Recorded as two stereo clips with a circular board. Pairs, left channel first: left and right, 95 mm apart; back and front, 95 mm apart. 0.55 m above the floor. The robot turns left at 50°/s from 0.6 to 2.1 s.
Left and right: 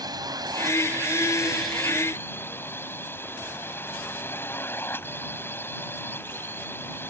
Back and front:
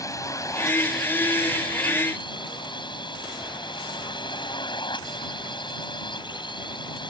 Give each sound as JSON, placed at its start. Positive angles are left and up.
{"t": 0.0, "sound": "a drone", "azimuth_deg": -130}